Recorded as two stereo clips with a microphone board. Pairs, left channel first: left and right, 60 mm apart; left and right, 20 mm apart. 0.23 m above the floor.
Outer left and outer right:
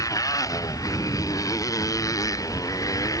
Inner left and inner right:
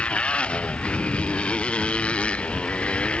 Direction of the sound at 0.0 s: 65° left (ahead or behind).